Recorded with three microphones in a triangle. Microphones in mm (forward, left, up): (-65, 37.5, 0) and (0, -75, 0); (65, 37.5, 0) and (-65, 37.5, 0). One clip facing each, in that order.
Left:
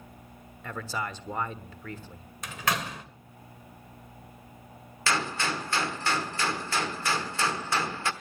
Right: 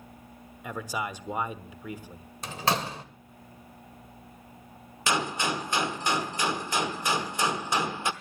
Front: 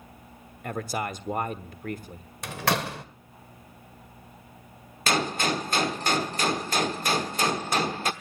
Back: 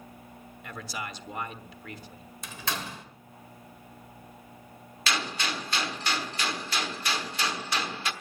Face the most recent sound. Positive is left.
turn(degrees=5)